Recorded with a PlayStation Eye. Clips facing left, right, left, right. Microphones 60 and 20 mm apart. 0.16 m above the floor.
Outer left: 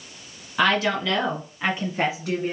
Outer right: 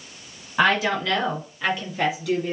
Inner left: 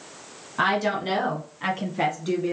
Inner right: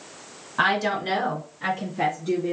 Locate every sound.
0.6 s a woman speaking: 10° right (ahead or behind), 1.6 m; by 2.5 s 40° left (ahead or behind), 1.8 m